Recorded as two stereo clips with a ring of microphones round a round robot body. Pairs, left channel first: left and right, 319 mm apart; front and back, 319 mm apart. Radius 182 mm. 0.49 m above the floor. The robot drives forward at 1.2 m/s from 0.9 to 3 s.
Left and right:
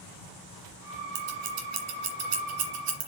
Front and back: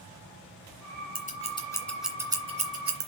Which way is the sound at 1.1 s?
65° right.